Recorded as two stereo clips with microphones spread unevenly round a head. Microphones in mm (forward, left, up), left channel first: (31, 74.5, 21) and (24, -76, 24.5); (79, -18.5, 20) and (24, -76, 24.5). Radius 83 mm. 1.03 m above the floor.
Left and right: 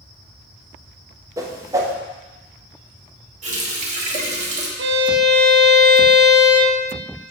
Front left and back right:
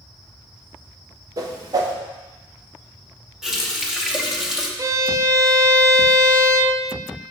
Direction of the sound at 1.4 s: 155° right.